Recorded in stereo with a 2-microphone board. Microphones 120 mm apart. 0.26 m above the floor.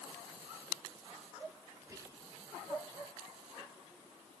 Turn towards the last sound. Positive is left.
turn(degrees=-25)  # may be behind; listen again after turning